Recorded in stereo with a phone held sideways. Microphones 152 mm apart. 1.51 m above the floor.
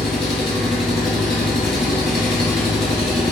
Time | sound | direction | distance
0.0 | an engine running | centre (ahead or behind) | 0.7 m